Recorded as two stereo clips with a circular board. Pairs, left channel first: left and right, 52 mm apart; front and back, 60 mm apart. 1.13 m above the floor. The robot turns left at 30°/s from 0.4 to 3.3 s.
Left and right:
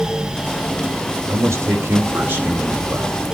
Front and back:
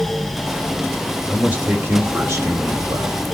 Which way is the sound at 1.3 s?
110° right.